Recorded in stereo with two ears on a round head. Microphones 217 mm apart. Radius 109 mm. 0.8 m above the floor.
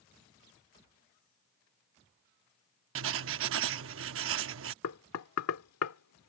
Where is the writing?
55° right (ahead or behind).